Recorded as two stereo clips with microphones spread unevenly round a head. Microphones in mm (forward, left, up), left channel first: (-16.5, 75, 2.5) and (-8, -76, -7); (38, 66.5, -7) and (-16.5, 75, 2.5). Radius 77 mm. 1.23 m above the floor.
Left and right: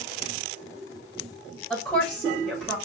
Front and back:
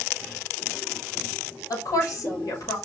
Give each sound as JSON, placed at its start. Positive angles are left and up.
{"t": 1.7, "sound": "a woman speaking", "azimuth_deg": 10, "distance_m": 5.5}